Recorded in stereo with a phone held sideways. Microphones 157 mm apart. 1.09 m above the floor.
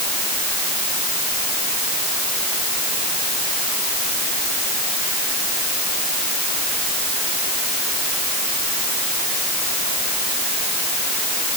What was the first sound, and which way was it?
Only background noise.